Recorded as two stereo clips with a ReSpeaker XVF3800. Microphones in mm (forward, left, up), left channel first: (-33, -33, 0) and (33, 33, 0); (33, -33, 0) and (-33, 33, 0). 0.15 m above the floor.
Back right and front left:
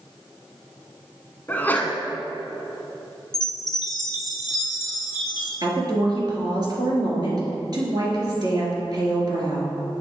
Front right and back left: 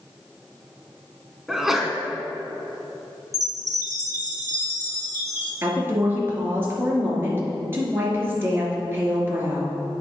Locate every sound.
1.5 s a sneeze: 145° right, 1.1 m
3.3 s a chime: 175° right, 1.9 m
5.6 s a woman speaking: 75° left, 2.5 m